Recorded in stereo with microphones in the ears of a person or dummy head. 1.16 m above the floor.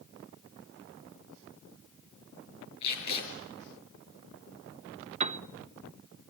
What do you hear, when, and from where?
2.8 s tape being pulled: 35° left (ahead or behind), 6 m
5.2 s a piano: 35° right (ahead or behind), 0.6 m